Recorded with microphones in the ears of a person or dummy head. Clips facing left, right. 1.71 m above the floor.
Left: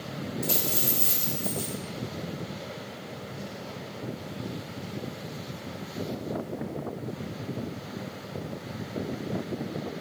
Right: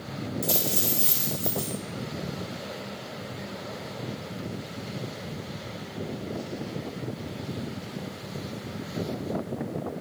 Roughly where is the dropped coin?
Right.